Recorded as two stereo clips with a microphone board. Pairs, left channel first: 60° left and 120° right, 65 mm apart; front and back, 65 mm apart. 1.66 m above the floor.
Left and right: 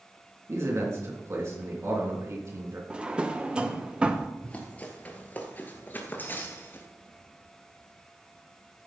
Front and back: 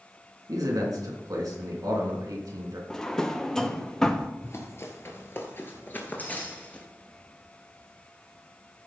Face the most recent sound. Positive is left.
turn(degrees=55)